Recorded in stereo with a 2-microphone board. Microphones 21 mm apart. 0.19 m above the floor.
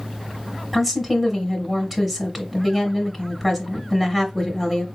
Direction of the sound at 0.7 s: 10° right (ahead or behind).